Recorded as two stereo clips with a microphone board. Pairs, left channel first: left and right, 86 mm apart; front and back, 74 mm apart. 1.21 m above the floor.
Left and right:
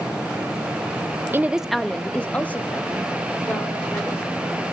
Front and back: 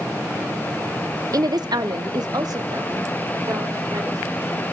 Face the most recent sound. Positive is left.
turn(degrees=150)